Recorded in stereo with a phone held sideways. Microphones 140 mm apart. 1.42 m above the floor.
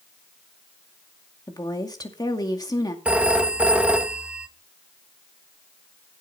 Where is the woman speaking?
30° left (ahead or behind), 2 m.